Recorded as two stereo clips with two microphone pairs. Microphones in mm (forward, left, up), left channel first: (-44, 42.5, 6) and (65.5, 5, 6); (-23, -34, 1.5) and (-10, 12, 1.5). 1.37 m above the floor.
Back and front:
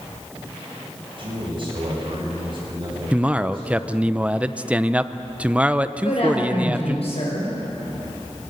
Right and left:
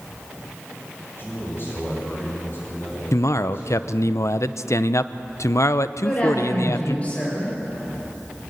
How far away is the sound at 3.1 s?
About 0.7 m.